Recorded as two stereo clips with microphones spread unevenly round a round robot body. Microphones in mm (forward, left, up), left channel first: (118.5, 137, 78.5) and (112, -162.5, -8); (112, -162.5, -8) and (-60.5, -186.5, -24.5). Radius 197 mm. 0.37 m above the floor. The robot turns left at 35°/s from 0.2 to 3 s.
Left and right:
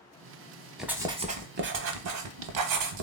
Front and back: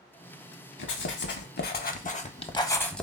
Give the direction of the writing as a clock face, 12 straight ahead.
12 o'clock.